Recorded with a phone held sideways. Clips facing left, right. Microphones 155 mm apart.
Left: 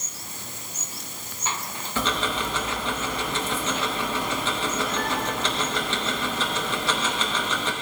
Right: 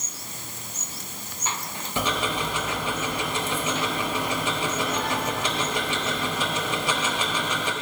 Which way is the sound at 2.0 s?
15° right (ahead or behind).